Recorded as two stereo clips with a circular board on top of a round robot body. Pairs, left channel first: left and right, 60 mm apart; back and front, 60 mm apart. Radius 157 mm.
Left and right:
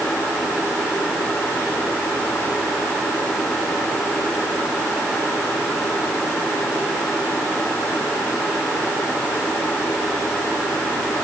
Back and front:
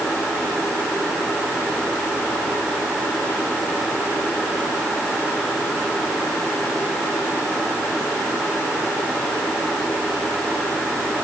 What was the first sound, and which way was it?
Only background noise.